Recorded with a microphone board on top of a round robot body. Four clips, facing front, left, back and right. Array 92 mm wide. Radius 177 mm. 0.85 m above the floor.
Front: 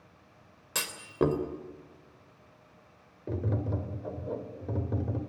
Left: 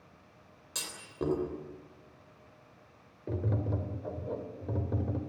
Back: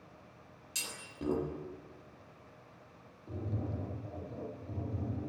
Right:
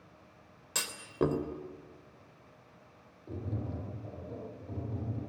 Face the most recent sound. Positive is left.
turn(degrees=40)